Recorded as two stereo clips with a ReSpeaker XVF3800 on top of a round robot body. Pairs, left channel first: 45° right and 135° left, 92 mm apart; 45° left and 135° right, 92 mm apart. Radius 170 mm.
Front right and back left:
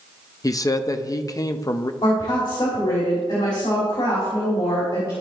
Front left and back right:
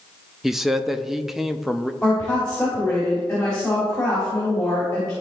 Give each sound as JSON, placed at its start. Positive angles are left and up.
{"t": 0.4, "sound": "a man speaking", "azimuth_deg": -50, "distance_m": 0.8}
{"t": 2.0, "sound": "a woman speaking", "azimuth_deg": -30, "distance_m": 3.5}